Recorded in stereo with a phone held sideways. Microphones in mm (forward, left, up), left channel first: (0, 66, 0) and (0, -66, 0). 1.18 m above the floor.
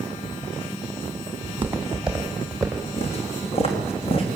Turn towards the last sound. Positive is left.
turn(degrees=50)  # may be behind; listen again after turning